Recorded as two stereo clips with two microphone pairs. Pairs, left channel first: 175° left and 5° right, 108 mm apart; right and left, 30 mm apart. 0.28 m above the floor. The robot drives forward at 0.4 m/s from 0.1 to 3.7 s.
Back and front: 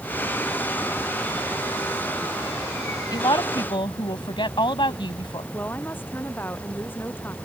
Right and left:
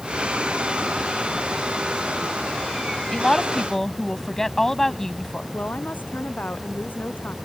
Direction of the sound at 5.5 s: 110° right.